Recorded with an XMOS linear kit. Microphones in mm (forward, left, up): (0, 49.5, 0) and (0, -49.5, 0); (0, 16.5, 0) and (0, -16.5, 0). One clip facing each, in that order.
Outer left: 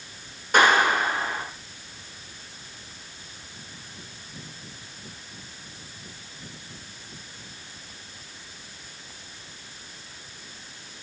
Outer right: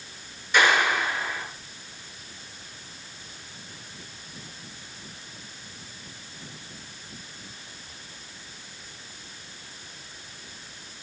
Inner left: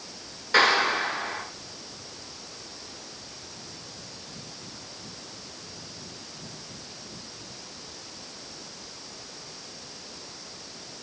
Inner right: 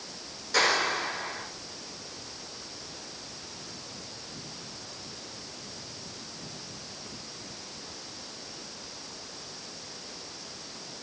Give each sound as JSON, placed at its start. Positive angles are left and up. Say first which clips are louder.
{"t": 0.5, "sound": "a clap", "louder": "outer left 3 dB, inner left 5 dB", "side_deg": 45, "distance_m": 9.0}